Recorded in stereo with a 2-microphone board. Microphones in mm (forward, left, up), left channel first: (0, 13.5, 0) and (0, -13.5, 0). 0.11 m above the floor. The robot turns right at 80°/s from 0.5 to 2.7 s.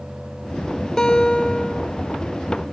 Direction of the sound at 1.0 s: 30° left.